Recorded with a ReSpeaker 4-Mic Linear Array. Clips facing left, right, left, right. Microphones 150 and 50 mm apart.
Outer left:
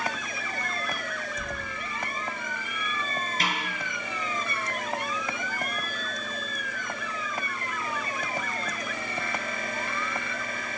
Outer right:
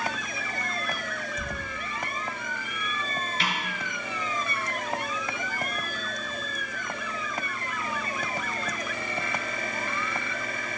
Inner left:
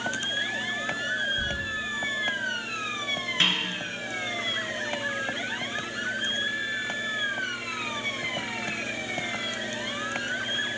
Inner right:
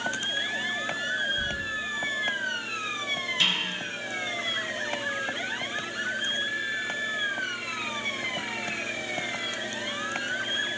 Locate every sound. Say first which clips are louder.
1.4 s keys jangling: even, even; 5° right (ahead or behind), 3.5 m
3.4 s a snare drum: outer left 1 dB, inner left 2 dB; 40° left (ahead or behind), 5.5 m